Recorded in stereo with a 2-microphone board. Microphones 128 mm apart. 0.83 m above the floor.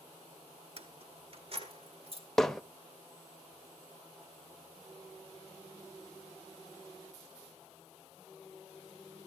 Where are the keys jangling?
50° right (ahead or behind), 1.0 m.